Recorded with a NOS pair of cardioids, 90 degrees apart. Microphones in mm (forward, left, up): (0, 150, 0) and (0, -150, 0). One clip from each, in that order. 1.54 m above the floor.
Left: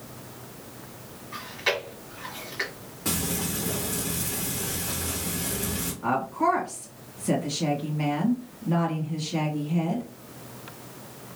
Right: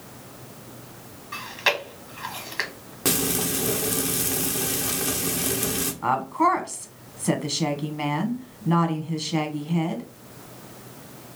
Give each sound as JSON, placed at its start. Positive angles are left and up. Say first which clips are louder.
{"t": 1.3, "sound": "chewing", "louder": "right 4 dB", "azimuth_deg": -60, "distance_m": 1.5}
{"t": 3.0, "sound": "frying", "louder": "right 5 dB", "azimuth_deg": -65, "distance_m": 1.1}
{"t": 6.0, "sound": "a woman speaking", "louder": "right 3 dB", "azimuth_deg": -60, "distance_m": 1.5}